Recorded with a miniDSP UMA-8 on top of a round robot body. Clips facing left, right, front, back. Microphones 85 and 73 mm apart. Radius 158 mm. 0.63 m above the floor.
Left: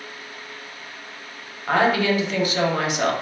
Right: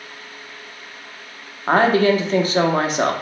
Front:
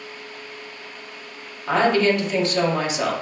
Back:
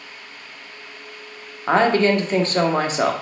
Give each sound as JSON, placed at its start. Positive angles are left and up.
{"t": 1.7, "sound": "a woman speaking", "azimuth_deg": -135, "distance_m": 0.9}